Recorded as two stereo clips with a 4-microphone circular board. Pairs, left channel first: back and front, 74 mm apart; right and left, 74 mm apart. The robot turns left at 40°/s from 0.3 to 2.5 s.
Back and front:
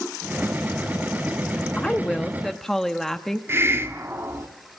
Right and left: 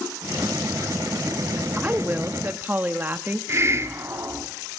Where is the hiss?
45° left, 1.9 m.